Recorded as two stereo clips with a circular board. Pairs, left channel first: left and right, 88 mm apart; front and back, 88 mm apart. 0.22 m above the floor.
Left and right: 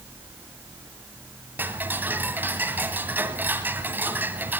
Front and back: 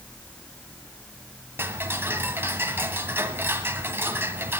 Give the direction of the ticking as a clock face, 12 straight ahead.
5 o'clock.